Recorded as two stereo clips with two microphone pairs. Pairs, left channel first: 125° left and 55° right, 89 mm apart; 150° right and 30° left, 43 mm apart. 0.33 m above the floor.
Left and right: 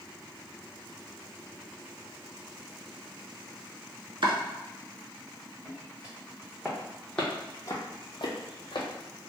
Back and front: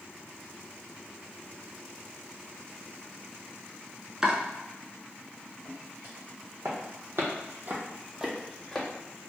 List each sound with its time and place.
4.2 s chopping: 40° right, 0.6 m
5.7 s footsteps: 15° left, 1.7 m; by 8.9 s 135° left, 0.9 m